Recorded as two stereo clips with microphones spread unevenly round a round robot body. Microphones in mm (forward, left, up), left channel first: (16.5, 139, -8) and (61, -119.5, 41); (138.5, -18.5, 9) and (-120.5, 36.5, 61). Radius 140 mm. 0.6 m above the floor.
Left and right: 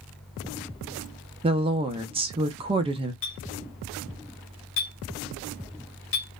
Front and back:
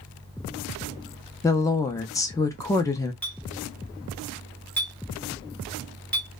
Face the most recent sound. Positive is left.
turn(degrees=70)